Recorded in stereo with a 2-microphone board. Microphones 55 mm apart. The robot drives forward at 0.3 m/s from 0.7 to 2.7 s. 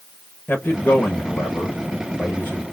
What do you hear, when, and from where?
0.5 s a man speaking: 35° left (ahead or behind), 1.0 m; by 2.6 s 25° left (ahead or behind), 1.4 m